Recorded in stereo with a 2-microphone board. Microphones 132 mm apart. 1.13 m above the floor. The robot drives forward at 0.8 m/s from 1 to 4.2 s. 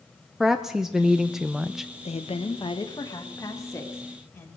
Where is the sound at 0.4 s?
5° right (ahead or behind), 0.6 m.